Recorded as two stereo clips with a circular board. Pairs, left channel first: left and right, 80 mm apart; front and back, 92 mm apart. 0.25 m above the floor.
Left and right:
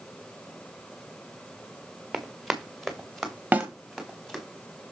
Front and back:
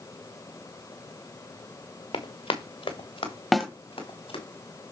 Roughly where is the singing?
I don't hear singing.